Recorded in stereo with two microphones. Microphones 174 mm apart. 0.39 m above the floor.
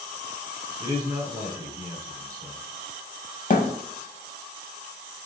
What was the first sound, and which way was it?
A man speaking, 20° right (ahead or behind).